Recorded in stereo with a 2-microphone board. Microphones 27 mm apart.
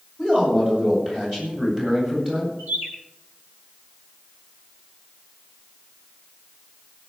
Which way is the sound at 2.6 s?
85° right.